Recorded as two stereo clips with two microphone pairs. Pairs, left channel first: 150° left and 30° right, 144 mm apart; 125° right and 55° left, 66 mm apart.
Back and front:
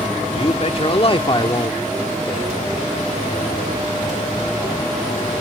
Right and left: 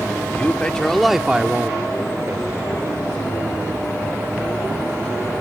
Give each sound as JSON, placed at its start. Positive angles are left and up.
{"t": 0.3, "sound": "a man speaking", "azimuth_deg": 180}